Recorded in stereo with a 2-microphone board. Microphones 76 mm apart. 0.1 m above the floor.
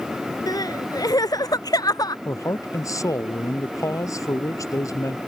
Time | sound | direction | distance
0.5 | crying | 60° left (ahead or behind) | ?
2.2 | a man speaking | 50° left (ahead or behind) | ?